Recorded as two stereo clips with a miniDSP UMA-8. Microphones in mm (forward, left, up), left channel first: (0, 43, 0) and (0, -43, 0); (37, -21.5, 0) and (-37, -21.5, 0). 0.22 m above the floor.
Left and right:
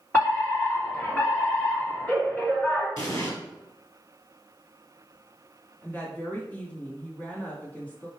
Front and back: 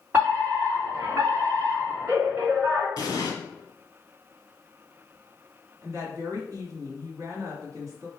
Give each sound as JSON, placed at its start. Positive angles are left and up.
{"t": 0.1, "sound": "a fire alarm", "azimuth_deg": 150, "distance_m": 2.5}
{"t": 3.0, "sound": "an explosion", "azimuth_deg": 40, "distance_m": 1.5}
{"t": 5.8, "sound": "a woman speaking", "azimuth_deg": 155, "distance_m": 2.0}